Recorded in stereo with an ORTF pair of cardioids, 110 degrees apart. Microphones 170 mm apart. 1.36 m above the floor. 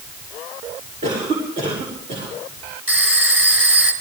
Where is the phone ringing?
10° right, 3.5 m.